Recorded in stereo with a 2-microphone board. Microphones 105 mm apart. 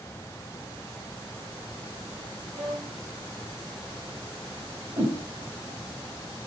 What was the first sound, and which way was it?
A violin, 45° right (ahead or behind).